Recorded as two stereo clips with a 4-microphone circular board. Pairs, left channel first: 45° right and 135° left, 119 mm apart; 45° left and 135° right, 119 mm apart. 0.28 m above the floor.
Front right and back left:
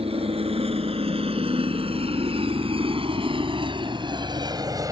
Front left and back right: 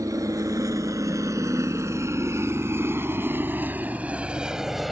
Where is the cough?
I don't hear a cough.